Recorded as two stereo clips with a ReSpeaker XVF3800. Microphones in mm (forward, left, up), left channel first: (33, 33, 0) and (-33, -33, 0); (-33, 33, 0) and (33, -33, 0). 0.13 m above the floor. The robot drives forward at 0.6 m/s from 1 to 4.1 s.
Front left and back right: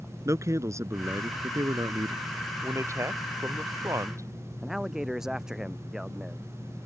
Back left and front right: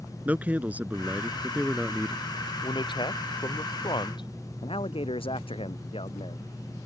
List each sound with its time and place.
0.2 s a man speaking: 105° right; by 2.2 s 135° right
2.6 s a man speaking: 170° left
4.6 s a man speaking: 140° left